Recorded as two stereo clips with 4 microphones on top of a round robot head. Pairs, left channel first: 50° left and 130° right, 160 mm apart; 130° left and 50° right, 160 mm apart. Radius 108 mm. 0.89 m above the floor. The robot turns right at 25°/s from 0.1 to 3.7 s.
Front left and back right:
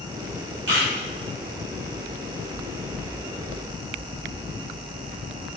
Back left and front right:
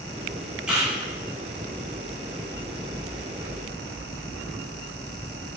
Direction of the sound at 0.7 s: 135° right.